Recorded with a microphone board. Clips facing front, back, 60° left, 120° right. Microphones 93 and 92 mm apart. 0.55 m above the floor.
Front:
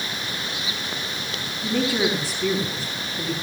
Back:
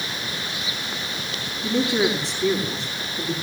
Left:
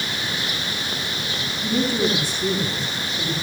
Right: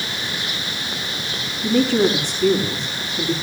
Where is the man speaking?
90° right, 4 m.